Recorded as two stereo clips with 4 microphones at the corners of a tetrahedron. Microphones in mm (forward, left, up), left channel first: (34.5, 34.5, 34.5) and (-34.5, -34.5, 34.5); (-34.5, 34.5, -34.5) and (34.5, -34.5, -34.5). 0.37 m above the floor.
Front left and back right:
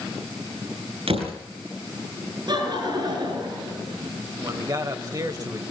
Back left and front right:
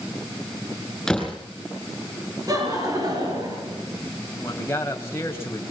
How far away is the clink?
No clink in this recording.